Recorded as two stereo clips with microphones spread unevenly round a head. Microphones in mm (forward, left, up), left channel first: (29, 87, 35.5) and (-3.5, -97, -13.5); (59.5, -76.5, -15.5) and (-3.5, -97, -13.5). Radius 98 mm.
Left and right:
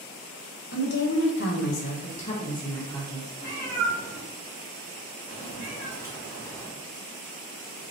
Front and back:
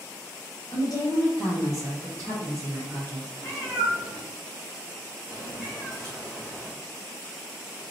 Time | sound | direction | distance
0.7 | a woman speaking | 60° left | 0.8 m
3.4 | a cat meowing | 80° left | 1.4 m